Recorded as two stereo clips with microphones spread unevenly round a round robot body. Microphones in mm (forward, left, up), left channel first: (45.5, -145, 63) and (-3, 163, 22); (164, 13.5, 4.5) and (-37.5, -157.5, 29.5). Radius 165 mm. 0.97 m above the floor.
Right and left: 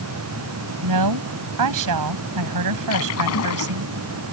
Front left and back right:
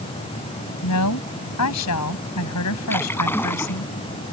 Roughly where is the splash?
Ahead right.